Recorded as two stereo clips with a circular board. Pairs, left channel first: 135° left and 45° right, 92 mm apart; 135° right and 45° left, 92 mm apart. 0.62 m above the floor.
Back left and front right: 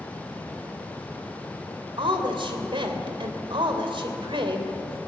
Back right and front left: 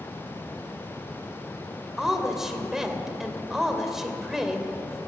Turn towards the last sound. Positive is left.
turn(degrees=-40)